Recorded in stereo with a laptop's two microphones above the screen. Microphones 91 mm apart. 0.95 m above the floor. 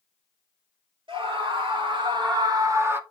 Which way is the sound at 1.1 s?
75° right (ahead or behind).